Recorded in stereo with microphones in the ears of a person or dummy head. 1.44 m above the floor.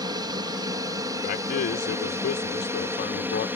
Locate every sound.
0.0 s an aircraft: 25° right (ahead or behind); by 3.6 s 10° right (ahead or behind)
1.2 s a man speaking: 55° left (ahead or behind)